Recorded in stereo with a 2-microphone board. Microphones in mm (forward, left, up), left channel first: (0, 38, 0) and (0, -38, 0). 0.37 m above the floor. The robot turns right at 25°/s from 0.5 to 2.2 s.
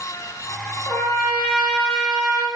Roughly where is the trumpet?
Behind left.